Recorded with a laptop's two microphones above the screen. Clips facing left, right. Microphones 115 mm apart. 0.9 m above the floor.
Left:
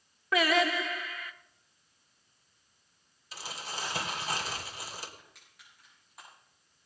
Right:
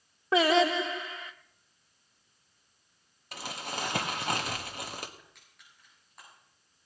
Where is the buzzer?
I don't hear a buzzer.